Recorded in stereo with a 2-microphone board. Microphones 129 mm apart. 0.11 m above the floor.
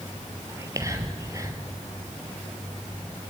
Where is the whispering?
25° right (ahead or behind), 2.5 m.